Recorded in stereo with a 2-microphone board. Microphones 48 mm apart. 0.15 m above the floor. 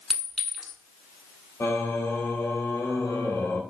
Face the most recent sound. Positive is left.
turn(degrees=70)  # may be behind; listen again after turning